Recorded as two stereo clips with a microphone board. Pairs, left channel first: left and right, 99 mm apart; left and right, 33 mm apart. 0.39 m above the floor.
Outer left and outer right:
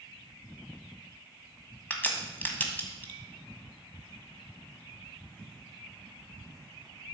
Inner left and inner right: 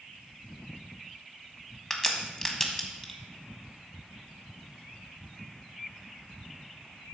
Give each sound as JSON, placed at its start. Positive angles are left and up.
{"t": 1.9, "sound": "a crack", "side_deg": 20, "distance_m": 1.4}